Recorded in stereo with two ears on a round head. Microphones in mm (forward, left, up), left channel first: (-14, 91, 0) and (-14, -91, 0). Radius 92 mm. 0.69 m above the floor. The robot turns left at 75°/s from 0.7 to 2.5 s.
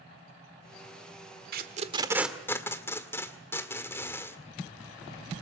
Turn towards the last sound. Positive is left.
turn(degrees=15)  # may be behind; listen again after turning